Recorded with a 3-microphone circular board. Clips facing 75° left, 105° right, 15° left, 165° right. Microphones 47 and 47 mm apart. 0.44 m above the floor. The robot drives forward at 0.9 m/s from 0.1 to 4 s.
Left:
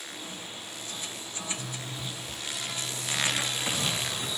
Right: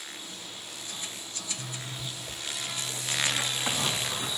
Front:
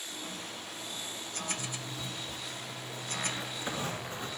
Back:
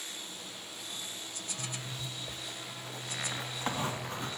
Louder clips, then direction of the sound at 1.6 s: Left 1 dB, front 1 dB; 110° right.